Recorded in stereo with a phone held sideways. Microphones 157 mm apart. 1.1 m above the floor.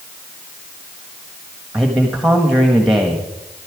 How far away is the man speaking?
About 1.4 m.